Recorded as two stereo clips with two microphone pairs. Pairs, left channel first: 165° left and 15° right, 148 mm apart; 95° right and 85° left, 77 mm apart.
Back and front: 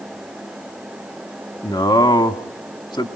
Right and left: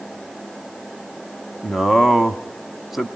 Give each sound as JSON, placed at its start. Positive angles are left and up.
{"t": 1.6, "sound": "a man speaking", "azimuth_deg": 170, "distance_m": 1.1}